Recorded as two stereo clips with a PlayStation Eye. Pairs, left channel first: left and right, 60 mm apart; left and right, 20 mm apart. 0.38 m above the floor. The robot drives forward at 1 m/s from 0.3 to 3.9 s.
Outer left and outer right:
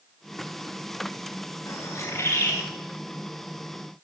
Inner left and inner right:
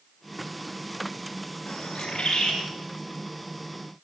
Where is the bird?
55° left (ahead or behind), 8 m; by 2.6 s 50° left (ahead or behind), 9 m.